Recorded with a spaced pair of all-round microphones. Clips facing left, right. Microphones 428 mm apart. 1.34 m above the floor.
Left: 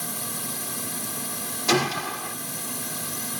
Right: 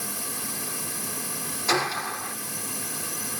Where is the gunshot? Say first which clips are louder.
Left 5 dB; 50° left (ahead or behind).